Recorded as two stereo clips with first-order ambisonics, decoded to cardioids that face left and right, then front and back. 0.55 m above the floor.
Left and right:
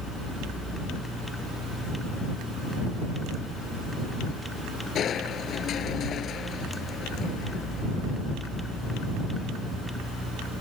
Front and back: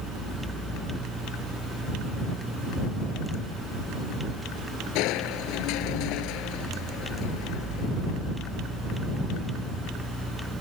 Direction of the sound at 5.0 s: 30° left.